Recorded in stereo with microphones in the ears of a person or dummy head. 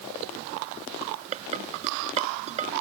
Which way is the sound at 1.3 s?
40° right (ahead or behind).